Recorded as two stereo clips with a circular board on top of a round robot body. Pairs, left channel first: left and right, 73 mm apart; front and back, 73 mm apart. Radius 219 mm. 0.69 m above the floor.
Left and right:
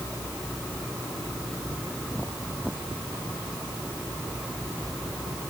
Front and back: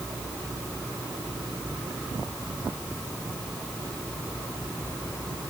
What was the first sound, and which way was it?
Only background noise.